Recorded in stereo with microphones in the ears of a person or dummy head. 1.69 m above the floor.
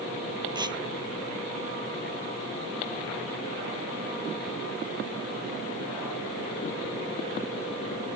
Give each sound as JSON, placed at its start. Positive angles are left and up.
{"t": 0.6, "sound": "tearing paper", "side_deg": -25}